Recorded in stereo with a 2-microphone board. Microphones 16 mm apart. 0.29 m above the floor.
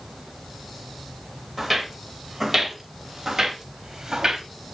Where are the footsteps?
Centre (ahead or behind), 2.5 m; by 4.5 s 30° right (ahead or behind), 2.0 m.